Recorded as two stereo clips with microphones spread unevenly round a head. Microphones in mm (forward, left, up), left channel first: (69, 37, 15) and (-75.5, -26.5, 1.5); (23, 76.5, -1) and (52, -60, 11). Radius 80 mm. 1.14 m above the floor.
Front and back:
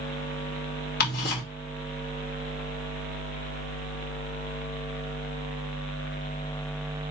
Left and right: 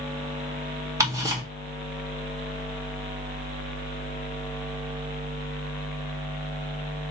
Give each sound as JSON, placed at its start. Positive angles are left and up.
{"t": 1.0, "sound": "ticking", "azimuth_deg": -10, "distance_m": 2.5}